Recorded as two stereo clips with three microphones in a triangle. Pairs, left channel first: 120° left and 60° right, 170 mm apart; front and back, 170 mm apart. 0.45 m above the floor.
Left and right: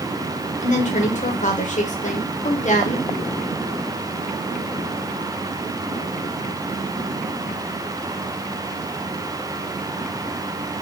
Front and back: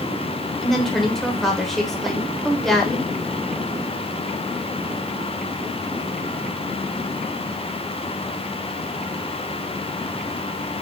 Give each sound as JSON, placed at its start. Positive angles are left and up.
{"t": 0.6, "sound": "a woman speaking", "azimuth_deg": 90, "distance_m": 1.1}